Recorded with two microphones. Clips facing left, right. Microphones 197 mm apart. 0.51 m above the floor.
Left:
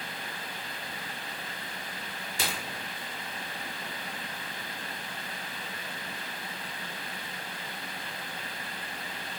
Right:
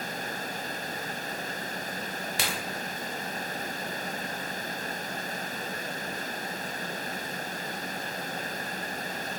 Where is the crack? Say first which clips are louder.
Even; 75° right (ahead or behind), 0.8 m.